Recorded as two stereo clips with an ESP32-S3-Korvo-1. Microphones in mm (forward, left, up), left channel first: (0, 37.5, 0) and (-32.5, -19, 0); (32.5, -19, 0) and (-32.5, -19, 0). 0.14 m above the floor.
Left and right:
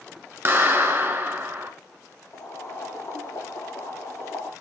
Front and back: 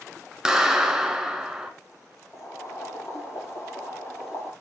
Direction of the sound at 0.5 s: 105° right.